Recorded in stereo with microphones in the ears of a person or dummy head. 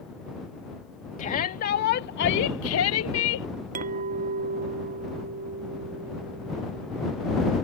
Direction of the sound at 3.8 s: 40° right (ahead or behind).